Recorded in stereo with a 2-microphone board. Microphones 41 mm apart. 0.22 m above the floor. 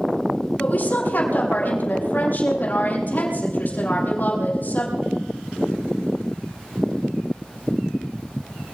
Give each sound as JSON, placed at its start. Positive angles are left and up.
{"t": 0.6, "sound": "a woman speaking", "side_deg": 45, "distance_m": 8.0}